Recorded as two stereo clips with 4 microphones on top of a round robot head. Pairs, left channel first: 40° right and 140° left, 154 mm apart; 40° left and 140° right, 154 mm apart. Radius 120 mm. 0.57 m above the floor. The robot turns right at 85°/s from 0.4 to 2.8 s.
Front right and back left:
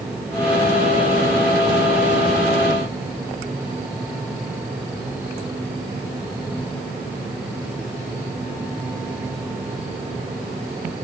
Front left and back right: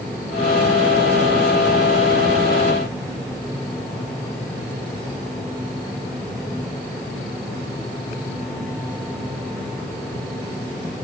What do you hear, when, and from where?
Only background noise.